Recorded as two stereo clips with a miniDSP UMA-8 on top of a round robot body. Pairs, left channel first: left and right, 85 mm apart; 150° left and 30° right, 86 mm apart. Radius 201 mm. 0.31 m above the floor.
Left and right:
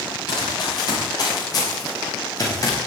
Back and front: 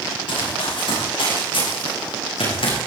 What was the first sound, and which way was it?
Running footsteps, 130° left.